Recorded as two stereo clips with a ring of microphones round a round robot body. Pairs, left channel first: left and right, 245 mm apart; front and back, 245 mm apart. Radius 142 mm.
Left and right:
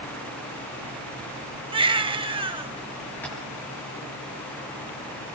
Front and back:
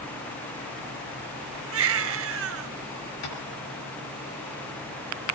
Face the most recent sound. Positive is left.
turn(degrees=5)